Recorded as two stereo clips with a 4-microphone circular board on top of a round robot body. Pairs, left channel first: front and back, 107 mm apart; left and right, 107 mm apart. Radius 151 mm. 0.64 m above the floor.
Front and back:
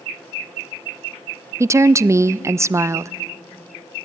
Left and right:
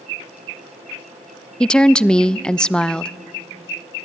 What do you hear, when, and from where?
1.6 s a woman speaking: 165° left, 0.5 m